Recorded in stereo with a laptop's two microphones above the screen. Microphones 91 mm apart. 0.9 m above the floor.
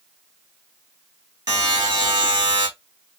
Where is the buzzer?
45° right (ahead or behind), 1.6 m.